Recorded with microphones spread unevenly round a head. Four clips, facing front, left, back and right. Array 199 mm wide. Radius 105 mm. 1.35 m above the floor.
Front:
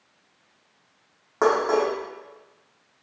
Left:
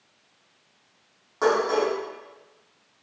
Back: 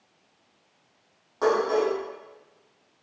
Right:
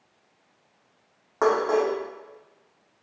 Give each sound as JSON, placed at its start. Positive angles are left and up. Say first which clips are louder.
{"t": 1.4, "sound": "dishes clattering", "louder": "even, front 2 dB", "azimuth_deg": -15, "distance_m": 1.9}